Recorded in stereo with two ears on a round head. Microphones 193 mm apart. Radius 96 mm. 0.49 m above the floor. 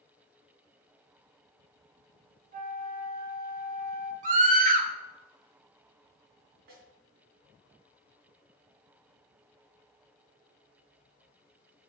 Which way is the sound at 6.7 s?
55° right (ahead or behind).